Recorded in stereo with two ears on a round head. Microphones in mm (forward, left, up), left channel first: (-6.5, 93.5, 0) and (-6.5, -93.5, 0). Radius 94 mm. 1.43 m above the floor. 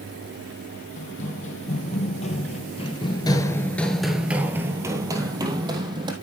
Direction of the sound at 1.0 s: 35° left (ahead or behind).